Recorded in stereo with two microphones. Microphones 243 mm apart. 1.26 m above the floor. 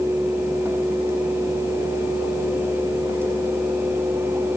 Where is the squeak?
No squeak in this recording.